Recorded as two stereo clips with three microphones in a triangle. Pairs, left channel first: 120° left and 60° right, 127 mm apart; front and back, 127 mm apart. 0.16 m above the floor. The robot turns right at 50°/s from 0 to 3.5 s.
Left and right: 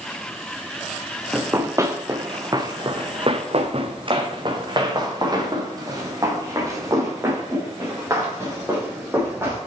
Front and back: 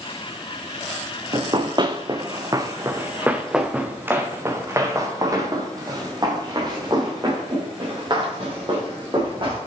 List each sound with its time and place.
1.3 s running footsteps: 130° right, 0.9 m